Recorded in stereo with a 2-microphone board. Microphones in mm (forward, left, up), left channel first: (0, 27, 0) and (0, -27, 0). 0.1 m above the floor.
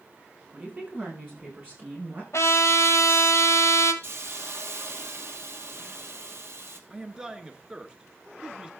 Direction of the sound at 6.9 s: 15° right (ahead or behind).